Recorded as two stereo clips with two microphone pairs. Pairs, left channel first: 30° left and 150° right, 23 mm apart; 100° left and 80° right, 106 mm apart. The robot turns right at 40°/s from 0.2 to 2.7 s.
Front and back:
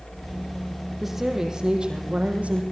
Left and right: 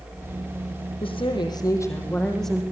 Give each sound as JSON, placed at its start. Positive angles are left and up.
{"t": 1.0, "sound": "a woman speaking", "azimuth_deg": 125, "distance_m": 5.5}